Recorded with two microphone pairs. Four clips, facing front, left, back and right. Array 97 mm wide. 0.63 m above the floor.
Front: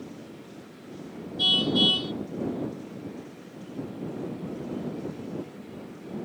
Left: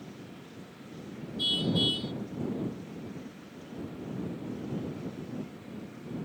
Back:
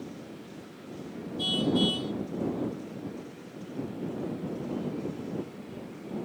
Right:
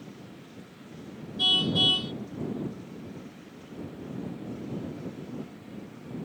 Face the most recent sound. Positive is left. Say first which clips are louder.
# right 1 dB, even
turn(degrees=-65)